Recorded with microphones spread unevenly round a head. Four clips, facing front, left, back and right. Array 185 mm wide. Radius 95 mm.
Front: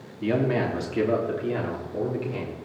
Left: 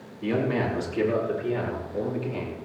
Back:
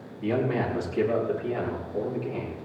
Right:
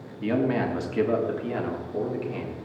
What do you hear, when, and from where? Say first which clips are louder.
0.2 s a man speaking: right 1 dB, front 2 dB; 40° right, 5 m